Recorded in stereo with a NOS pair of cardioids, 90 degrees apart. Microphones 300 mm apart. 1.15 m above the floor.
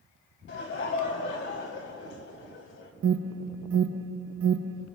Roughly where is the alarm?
Ahead right.